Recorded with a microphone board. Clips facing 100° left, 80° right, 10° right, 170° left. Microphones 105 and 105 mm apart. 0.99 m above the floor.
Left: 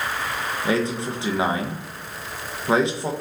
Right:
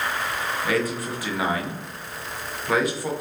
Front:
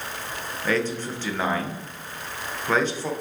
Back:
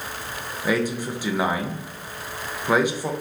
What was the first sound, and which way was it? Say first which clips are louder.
A man speaking: left 3 dB, back 2 dB; 105° left.